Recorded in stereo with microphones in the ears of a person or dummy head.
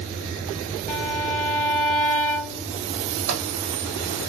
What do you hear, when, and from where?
0.9 s a violin: 10° left (ahead or behind), 3.5 m
3.3 s a microwave: 70° right (ahead or behind), 1.5 m